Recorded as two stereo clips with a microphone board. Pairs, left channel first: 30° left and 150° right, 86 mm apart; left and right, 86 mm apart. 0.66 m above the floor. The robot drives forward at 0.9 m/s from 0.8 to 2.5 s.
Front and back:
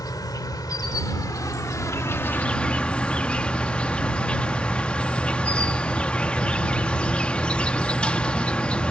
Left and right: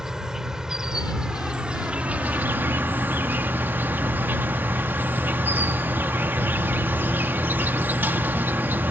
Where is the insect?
10° right; by 8.9 s 40° right.